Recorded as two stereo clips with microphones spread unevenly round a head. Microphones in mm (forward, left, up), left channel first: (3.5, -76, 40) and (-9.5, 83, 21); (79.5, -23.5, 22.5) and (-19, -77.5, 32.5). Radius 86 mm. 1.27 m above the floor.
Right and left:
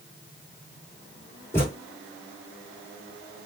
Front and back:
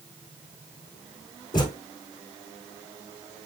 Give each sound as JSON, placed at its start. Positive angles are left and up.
{"t": 1.5, "sound": "a thud", "azimuth_deg": -20, "distance_m": 2.0}